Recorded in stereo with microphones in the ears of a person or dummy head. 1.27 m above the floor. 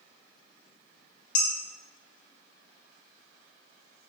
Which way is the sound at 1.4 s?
50° left (ahead or behind).